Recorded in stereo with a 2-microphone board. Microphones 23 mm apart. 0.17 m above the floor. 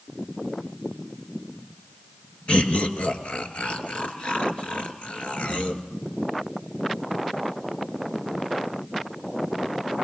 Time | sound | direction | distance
2.5 | laughter | 60° left (ahead or behind) | 2.5 m